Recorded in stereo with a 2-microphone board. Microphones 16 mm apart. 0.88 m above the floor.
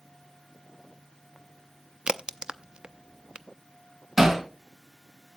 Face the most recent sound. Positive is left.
turn(degrees=-20)  # may be behind; listen again after turning